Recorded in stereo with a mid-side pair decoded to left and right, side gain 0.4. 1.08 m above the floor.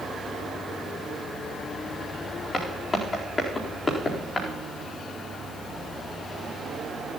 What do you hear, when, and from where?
2.5 s footsteps: 40° left, 4 m